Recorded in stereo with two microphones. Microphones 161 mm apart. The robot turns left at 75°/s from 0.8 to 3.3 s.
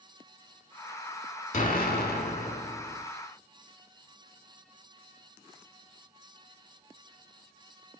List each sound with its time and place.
1.5 s an explosion: 130° left, 0.6 m; by 3.0 s 15° left, 0.6 m